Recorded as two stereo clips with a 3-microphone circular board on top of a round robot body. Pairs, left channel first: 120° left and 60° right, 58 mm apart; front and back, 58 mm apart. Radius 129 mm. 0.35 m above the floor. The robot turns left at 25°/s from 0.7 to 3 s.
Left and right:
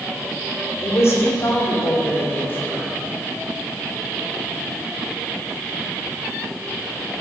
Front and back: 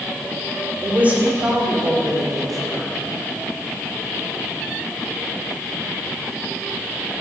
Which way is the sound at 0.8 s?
130° left.